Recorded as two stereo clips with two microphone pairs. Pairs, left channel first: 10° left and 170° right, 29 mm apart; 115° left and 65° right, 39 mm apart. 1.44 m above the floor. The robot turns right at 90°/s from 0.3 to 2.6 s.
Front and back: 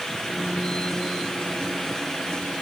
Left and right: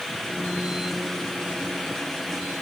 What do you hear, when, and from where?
Only background noise.